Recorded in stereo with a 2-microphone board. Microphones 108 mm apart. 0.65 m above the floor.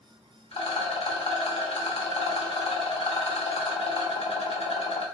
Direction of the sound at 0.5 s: 65° left (ahead or behind).